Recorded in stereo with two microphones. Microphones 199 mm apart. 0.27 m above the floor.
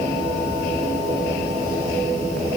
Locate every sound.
Only background noise.